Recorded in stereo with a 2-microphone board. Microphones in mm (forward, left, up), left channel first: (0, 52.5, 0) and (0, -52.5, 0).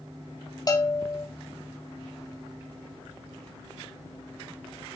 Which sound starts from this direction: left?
A bell, at 0.7 s.